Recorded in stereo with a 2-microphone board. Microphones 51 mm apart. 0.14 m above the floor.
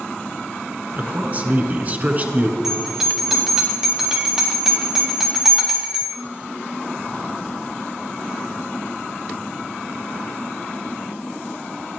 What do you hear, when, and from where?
1.0 s a man speaking: 35° right (ahead or behind), 1.8 m
2.6 s a bell: 10° right (ahead or behind), 3.5 m